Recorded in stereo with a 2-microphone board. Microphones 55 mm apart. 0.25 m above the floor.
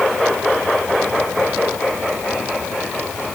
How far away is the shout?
I don't hear a shout.